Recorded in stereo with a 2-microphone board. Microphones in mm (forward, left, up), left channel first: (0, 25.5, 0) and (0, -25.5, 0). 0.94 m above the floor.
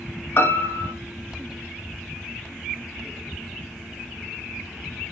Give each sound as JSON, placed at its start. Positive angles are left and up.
{"t": 0.4, "sound": "a piano", "side_deg": 55, "distance_m": 0.9}